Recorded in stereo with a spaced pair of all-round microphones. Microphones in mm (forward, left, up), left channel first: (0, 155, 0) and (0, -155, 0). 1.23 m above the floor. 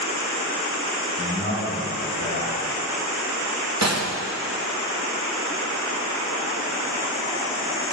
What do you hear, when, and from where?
1.2 s a man speaking: 35° left (ahead or behind), 3.5 m
3.8 s a gunshot: 60° right (ahead or behind), 0.8 m